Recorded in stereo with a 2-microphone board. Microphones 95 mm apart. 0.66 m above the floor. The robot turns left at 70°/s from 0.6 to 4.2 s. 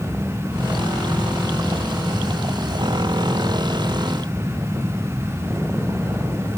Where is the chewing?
No chewing in this recording.